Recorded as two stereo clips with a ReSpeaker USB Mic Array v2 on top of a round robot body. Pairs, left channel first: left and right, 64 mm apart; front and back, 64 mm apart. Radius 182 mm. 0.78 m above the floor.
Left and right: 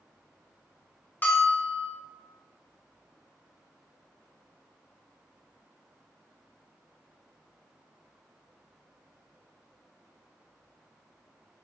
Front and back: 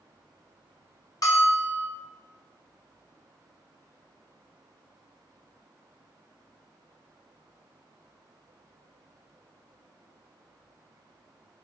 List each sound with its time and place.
1.2 s a bell: 30° left, 0.7 m